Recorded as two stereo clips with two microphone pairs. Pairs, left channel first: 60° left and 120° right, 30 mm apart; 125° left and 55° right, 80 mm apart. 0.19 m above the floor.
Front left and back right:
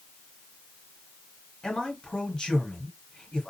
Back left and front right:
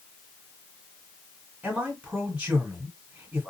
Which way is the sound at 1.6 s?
15° left.